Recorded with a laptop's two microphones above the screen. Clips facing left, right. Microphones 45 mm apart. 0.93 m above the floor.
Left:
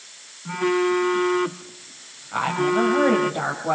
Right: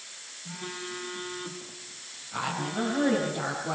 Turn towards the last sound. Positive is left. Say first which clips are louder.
# left 10 dB
turn(degrees=40)  # may be behind; listen again after turning